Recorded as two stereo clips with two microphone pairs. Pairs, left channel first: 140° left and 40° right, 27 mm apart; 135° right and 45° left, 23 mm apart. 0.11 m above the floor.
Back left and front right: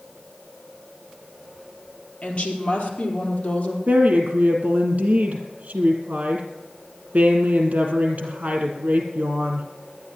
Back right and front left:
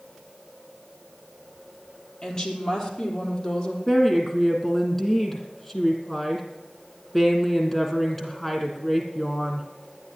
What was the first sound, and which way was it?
A woman speaking, 165° left.